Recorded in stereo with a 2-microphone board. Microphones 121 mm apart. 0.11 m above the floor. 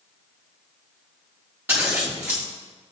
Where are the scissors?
15° right (ahead or behind), 4 m.